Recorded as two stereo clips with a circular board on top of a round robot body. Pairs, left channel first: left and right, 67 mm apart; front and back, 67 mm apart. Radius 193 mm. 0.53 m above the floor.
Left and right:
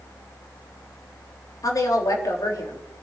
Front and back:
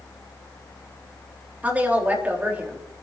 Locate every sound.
1.6 s a woman speaking: 115° left, 3.5 m